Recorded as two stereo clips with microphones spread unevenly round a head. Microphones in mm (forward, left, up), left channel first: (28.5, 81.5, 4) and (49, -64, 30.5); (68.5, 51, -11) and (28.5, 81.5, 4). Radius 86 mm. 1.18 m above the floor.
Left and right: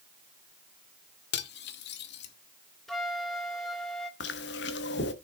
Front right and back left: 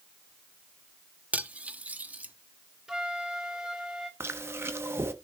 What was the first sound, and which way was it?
Cutlery clinking, 95° left.